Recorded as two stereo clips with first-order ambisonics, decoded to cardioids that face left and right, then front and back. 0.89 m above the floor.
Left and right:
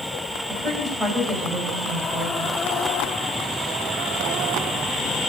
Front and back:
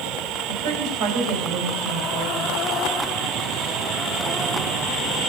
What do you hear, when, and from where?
0.5 s a woman speaking: 155° right, 4.5 m